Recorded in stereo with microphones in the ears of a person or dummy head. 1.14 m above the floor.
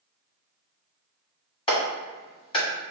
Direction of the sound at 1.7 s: 30° left (ahead or behind).